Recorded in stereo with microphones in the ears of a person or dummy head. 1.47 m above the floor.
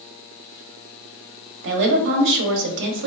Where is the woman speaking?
65° right (ahead or behind), 0.8 m.